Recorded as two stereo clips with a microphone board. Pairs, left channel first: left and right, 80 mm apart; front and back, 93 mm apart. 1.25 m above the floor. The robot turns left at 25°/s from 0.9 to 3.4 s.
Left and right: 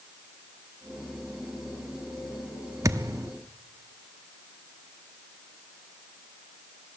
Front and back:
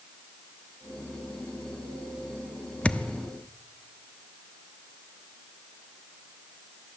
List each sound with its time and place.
2.8 s a thud: 70° right, 0.9 m; by 3.3 s 85° right, 0.9 m